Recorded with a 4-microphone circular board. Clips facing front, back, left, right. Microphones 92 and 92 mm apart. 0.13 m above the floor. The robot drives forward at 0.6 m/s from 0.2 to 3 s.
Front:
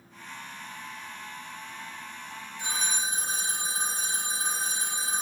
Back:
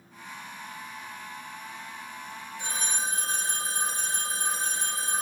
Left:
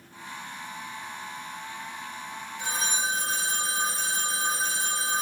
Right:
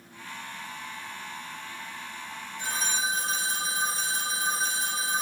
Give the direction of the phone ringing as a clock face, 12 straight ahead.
6 o'clock.